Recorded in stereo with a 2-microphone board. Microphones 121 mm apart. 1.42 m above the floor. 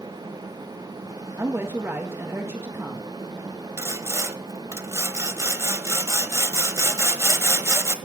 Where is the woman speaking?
20° right (ahead or behind), 1.8 m.